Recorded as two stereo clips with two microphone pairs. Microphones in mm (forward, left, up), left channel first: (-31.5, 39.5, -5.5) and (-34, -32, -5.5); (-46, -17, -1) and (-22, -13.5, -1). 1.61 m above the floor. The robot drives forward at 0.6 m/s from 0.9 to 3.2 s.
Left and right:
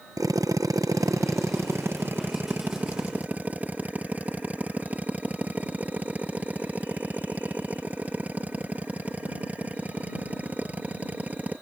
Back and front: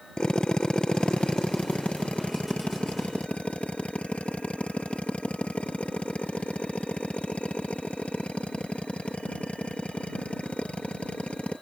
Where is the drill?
125° right; by 11.6 s 160° right.